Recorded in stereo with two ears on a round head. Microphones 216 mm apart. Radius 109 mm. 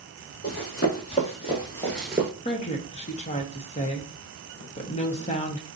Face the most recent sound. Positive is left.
turn(degrees=25)  # may be behind; listen again after turning